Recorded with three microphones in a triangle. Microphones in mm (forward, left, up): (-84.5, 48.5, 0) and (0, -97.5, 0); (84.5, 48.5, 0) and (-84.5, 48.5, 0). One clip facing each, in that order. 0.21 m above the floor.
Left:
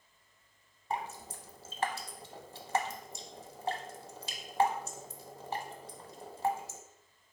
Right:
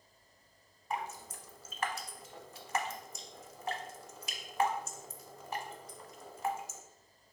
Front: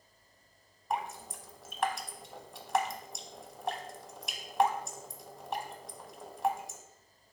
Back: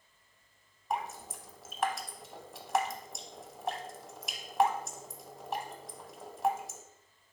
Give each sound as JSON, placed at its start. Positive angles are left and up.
{"t": 0.9, "sound": "dripping", "azimuth_deg": 90, "distance_m": 0.5}